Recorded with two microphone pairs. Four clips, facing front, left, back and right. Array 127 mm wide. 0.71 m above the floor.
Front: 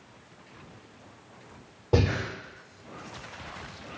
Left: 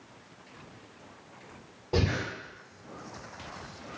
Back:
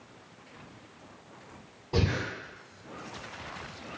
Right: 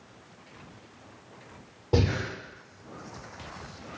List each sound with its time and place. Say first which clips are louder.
1.9 s breathing: right 3 dB, front 4 dB; 15° right, 1.4 m